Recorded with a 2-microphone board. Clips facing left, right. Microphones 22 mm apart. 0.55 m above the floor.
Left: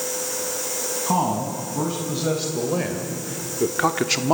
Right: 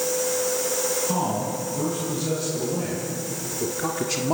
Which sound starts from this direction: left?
A man speaking, at 1.1 s.